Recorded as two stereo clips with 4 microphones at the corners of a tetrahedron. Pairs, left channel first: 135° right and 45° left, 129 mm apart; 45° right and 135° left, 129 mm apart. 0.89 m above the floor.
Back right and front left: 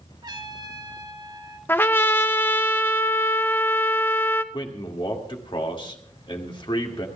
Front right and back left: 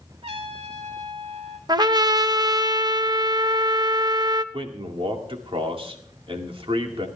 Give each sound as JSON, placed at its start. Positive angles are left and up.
{"t": 0.2, "sound": "a trumpet", "azimuth_deg": 100, "distance_m": 2.5}
{"t": 1.7, "sound": "a trumpet", "azimuth_deg": 160, "distance_m": 0.7}
{"t": 4.5, "sound": "a man speaking", "azimuth_deg": 175, "distance_m": 2.0}